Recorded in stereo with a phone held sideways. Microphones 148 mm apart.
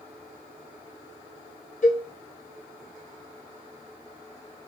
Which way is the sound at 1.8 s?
60° left (ahead or behind).